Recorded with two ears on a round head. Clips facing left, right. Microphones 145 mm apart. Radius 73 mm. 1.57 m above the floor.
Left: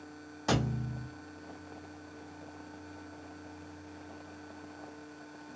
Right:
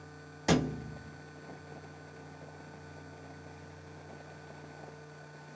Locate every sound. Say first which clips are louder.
0.5 s a thud: right 2 dB; 20° right (ahead or behind), 0.9 m